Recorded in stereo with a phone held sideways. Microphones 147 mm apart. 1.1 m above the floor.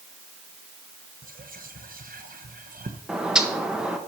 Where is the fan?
No fan in this recording.